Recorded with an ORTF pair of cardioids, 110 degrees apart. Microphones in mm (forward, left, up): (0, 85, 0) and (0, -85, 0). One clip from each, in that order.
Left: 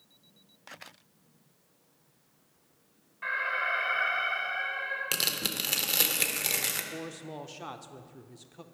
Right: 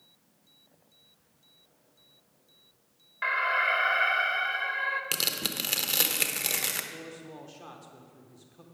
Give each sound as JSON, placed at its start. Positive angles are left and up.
{"t": 3.2, "sound": "an alarm", "azimuth_deg": -65, "distance_m": 1.0}
{"t": 5.1, "sound": "tearing paper", "azimuth_deg": -5, "distance_m": 0.7}
{"t": 6.9, "sound": "a man speaking", "azimuth_deg": 30, "distance_m": 0.7}